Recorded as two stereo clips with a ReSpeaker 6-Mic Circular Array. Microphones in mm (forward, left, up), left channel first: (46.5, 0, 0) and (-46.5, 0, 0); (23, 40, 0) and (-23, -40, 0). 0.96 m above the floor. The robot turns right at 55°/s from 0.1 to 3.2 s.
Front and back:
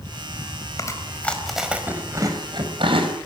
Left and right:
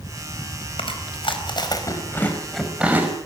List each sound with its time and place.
0.8 s chewing: 50° left, 5 m; by 3.1 s 175° left, 5 m